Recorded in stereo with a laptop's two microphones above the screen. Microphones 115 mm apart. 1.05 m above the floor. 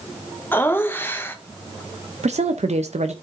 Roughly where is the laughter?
Centre.